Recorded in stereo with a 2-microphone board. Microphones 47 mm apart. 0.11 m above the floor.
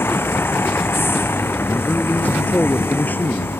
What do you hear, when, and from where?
0.0 s a vehicle: 55° left (ahead or behind)
1.7 s a man speaking: 40° left (ahead or behind)